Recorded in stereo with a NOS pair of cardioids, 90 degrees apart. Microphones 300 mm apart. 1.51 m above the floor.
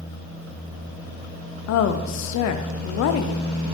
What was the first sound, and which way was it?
A woman speaking, 65° left.